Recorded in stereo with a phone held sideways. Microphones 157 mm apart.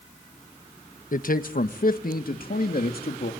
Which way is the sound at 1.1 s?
60° left (ahead or behind).